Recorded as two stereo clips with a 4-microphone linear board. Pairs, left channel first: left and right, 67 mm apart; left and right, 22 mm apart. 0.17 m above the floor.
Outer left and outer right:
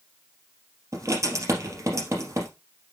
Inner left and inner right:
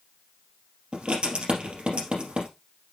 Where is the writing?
50° right (ahead or behind), 3 m.